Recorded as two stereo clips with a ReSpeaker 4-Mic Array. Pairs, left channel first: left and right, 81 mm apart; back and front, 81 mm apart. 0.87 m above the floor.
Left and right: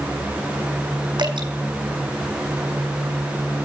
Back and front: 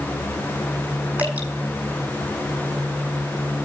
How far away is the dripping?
About 7 m.